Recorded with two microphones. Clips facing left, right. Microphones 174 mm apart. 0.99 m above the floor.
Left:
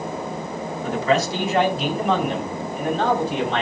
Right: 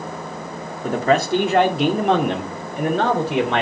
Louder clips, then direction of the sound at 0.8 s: Right 3 dB; 45° right (ahead or behind).